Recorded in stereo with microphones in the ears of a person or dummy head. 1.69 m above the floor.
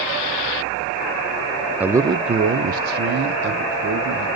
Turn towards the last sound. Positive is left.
turn(degrees=-70)  # may be behind; listen again after turning